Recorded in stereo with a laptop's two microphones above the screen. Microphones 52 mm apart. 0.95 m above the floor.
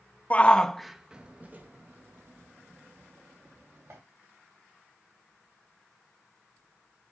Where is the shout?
30° left (ahead or behind), 0.6 m; by 4.0 s 65° right (ahead or behind), 1.8 m.